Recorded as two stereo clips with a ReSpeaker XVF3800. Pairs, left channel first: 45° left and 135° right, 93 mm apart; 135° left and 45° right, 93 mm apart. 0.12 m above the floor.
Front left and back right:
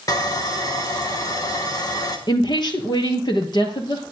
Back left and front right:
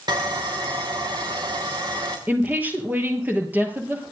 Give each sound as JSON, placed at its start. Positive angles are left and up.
{"t": 0.1, "sound": "sawing", "azimuth_deg": -5, "distance_m": 2.5}
{"t": 2.3, "sound": "a woman speaking", "azimuth_deg": 25, "distance_m": 2.5}